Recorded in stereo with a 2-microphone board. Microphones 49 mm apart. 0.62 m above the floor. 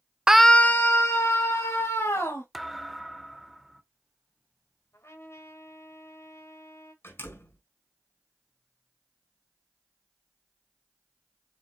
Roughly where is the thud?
Centre.